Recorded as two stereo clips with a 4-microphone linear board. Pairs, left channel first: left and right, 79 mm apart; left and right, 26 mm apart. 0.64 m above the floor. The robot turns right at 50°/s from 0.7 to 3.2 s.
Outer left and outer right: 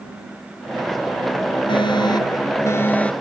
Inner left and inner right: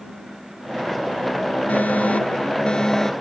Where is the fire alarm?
95° left; by 3.1 s 165° left.